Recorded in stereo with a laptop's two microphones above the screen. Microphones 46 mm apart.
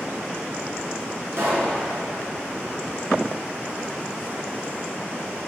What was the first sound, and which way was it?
A pop, 65° right (ahead or behind).